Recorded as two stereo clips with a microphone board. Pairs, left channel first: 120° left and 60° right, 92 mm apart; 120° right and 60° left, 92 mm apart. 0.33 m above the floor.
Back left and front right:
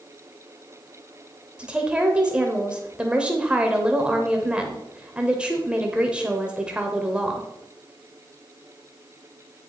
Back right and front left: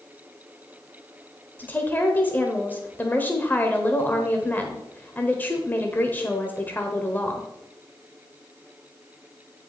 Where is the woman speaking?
115° right, 0.9 m.